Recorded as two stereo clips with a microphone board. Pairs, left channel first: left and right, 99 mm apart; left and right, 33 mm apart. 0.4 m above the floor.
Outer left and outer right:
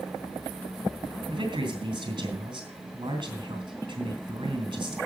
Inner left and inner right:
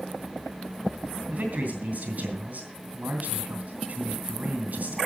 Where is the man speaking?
50° right (ahead or behind), 3.5 m.